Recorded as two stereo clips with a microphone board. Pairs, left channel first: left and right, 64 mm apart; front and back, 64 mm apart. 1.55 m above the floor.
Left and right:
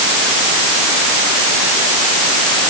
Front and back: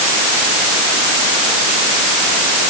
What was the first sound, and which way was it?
Only background noise.